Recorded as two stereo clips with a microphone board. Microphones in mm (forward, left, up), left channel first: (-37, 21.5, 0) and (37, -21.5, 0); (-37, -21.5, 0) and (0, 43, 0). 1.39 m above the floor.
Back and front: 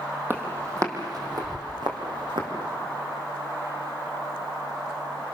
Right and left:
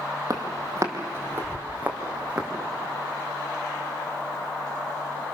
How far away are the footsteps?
About 3 m.